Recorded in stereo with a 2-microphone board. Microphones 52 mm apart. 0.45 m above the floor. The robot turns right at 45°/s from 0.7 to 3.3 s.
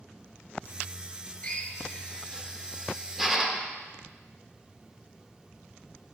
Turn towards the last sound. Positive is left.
turn(degrees=-10)  # may be behind; listen again after turning